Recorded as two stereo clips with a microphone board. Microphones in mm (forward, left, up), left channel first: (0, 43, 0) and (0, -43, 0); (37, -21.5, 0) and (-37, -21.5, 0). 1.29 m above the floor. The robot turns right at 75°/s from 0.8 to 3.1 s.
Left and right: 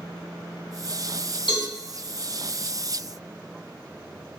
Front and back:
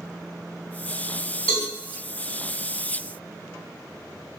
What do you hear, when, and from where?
1.5 s a cowbell: 70° left, 1.7 m; by 1.7 s 85° left, 1.7 m